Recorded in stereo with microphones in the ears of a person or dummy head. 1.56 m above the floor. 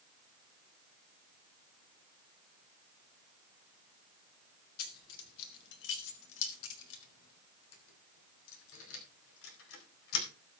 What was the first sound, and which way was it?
Keys jangling, 55° left (ahead or behind).